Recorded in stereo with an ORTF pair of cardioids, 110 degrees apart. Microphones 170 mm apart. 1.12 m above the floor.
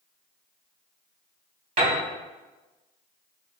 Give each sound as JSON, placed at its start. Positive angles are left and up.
{"t": 1.8, "sound": "a piano", "azimuth_deg": -50, "distance_m": 1.7}